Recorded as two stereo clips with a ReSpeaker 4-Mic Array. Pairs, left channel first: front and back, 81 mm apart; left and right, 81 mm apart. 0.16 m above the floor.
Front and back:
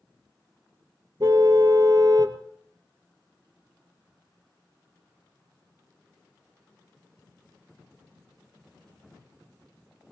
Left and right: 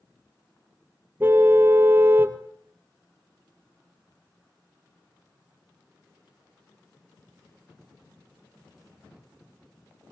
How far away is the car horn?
About 2 m.